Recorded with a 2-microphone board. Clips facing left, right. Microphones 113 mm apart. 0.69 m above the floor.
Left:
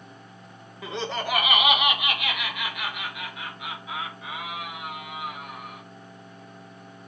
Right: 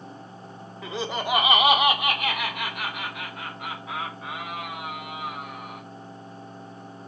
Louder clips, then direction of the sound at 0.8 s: Right 1 dB; 5° left (ahead or behind).